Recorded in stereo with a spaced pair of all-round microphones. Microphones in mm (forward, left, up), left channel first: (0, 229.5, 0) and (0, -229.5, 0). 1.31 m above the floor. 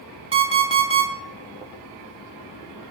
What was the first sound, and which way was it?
An alarm clock, 10° right (ahead or behind).